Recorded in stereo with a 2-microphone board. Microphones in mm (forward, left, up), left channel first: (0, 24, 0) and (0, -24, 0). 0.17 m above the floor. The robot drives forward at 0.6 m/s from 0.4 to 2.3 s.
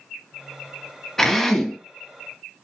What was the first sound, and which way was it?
A drill, 10° left (ahead or behind).